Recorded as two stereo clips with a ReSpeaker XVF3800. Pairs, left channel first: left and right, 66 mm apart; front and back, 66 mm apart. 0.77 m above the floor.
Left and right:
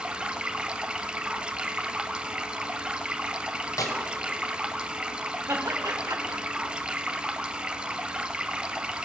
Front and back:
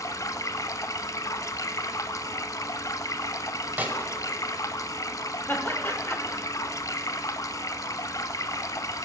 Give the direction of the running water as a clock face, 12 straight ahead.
1 o'clock.